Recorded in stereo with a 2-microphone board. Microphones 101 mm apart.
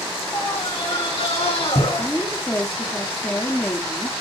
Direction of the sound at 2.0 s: 15° left (ahead or behind).